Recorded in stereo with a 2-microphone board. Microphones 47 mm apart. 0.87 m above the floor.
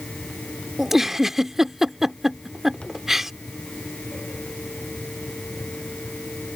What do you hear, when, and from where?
0.8 s a giggle: 5° right (ahead or behind)